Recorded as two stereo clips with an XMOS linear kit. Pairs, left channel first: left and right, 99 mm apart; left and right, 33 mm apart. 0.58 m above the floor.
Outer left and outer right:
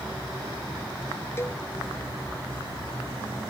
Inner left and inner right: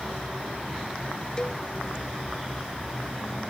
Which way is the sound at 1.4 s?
25° left (ahead or behind).